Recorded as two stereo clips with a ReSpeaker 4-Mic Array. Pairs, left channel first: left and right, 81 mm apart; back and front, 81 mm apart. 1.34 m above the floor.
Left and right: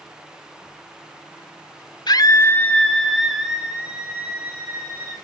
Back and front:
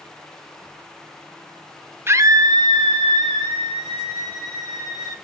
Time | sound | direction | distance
2.1 | a scream | 60° left | 1.0 m